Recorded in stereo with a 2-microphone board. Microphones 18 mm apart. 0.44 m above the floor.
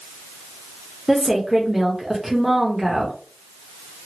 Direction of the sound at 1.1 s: 15° right (ahead or behind).